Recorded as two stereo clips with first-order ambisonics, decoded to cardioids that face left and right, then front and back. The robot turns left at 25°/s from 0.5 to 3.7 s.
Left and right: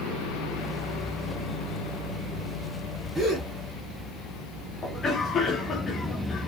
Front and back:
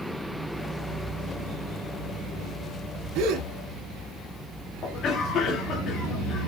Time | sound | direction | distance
3.1 | a gasp | 165° right | 2 m
4.8 | a cough | 30° left | 1.4 m